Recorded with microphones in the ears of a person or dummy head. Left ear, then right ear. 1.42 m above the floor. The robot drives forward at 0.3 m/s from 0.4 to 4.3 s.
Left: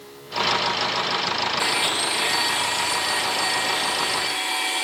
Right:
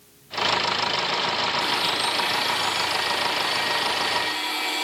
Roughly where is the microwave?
I don't hear a microwave.